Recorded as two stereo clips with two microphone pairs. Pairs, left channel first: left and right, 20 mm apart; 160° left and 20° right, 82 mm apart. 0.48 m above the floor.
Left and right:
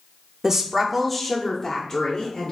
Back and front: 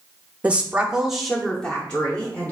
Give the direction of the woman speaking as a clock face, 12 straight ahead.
2 o'clock.